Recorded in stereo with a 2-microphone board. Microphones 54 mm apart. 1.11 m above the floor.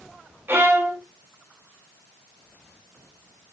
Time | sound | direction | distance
0.5 | a violin | 45° right (ahead or behind) | 0.6 m